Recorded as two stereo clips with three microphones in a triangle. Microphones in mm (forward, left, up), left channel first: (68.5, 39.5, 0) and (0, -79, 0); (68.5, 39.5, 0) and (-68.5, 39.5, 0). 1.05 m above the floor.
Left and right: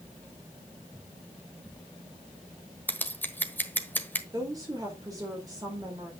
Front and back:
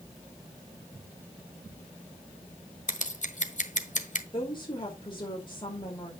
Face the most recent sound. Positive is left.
turn(degrees=-55)